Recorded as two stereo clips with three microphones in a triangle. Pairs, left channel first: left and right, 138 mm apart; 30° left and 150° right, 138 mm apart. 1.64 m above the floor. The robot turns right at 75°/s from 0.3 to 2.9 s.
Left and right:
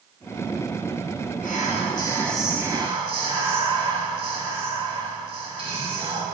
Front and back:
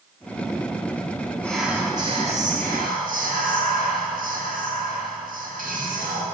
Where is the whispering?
110° left, 2 m; by 6.2 s 140° right, 2 m.